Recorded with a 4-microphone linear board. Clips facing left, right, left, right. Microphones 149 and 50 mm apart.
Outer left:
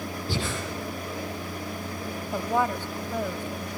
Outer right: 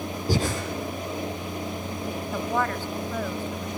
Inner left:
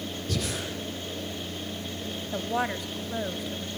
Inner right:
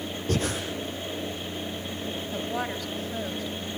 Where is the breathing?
40° right (ahead or behind), 5.5 m.